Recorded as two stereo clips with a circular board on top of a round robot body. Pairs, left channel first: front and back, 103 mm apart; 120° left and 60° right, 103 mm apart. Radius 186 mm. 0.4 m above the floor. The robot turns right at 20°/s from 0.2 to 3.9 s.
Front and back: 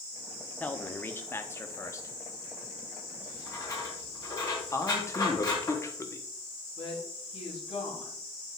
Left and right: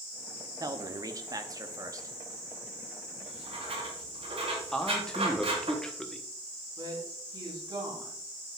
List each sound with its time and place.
0.6 s a man speaking: 65° right, 1.2 m; by 2.1 s 35° right, 1.2 m
3.2 s writing: 60° right, 4 m; by 5.7 s 45° right, 4 m
4.7 s a man speaking: 40° left, 1.5 m
6.8 s a woman speaking: 10° right, 4.5 m